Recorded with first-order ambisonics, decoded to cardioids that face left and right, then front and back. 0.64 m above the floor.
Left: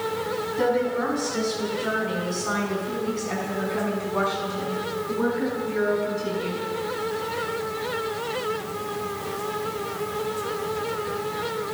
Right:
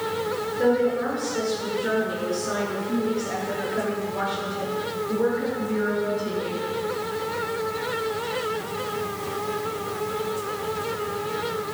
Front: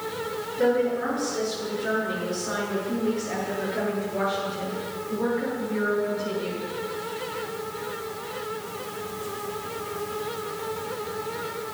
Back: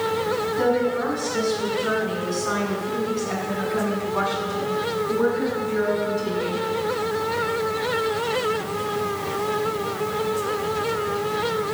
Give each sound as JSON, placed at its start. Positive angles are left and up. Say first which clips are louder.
{"t": 0.6, "sound": "a woman speaking", "louder": "right 2 dB, front 1 dB", "azimuth_deg": 125, "distance_m": 6.5}